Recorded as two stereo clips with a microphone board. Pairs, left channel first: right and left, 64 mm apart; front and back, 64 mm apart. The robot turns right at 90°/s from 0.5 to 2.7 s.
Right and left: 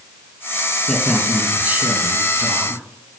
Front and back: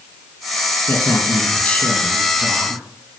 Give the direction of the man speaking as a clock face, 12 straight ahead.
1 o'clock.